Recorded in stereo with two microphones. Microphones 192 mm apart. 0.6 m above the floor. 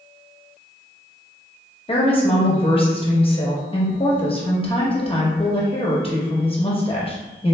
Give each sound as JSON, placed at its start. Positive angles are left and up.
{"t": 1.9, "sound": "a woman speaking", "side_deg": 30, "distance_m": 0.7}